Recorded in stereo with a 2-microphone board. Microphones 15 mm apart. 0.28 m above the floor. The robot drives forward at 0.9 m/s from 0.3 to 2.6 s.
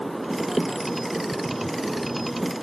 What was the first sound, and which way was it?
Only background noise.